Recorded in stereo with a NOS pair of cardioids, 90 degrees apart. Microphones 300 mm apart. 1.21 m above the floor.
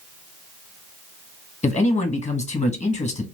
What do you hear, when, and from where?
1.6 s a man speaking: 25° left, 1.2 m